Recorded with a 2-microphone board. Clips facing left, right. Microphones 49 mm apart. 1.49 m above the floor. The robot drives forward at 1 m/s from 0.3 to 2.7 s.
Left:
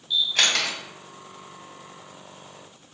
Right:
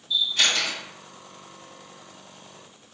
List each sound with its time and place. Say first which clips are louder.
0.1 s a camera shutter: left 1 dB; 70° left (ahead or behind), 1.6 m; by 0.8 s 85° left, 1.6 m